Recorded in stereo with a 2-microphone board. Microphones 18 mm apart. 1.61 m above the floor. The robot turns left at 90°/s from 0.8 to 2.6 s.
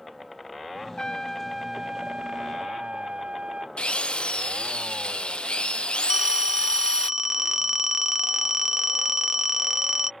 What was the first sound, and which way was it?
A trumpet, 45° left.